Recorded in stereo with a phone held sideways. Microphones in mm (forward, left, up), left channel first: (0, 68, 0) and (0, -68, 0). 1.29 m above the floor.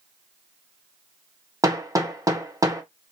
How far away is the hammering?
About 0.9 m.